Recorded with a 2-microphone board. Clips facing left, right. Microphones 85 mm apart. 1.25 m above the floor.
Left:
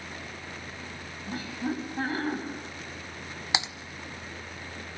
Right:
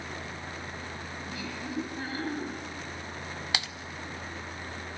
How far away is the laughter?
About 9.5 m.